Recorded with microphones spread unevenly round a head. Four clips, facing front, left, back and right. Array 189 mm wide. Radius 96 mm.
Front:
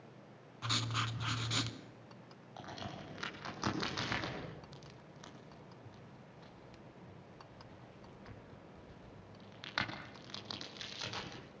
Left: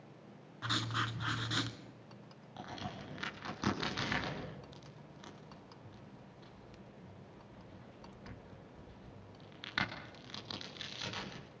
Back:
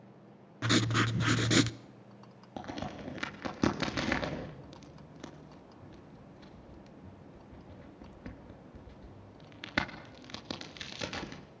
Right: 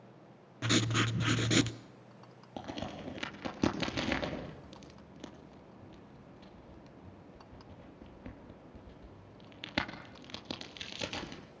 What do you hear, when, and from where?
0.6 s writing: 145° right, 0.7 m
2.6 s a crack: 140° right, 3.5 m